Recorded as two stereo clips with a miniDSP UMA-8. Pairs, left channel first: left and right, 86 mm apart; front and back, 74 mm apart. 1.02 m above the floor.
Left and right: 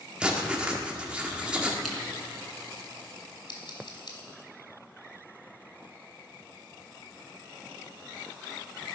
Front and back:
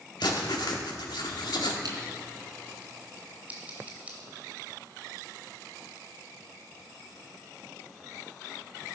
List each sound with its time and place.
0.2 s writing: 15° right, 1.7 m
1.8 s scissors: straight behind, 3.5 m
3.5 s scissors: 110° left, 2.5 m